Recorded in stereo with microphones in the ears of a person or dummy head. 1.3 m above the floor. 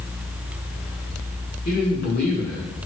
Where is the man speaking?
45° left (ahead or behind), 1.4 m.